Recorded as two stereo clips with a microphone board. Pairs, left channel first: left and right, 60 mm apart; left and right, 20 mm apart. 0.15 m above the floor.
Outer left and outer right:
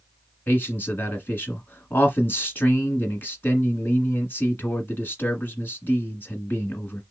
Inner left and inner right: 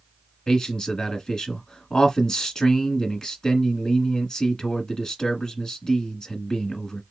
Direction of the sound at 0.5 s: 35° left (ahead or behind).